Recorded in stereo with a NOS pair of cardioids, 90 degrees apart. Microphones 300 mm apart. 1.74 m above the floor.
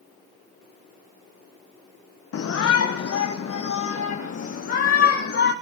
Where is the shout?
50° left, 1.6 m.